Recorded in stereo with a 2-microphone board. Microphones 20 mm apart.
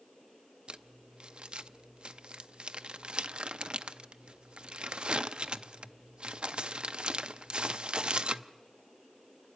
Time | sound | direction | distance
0.7 | crumpling | 65° right (ahead or behind) | 0.6 m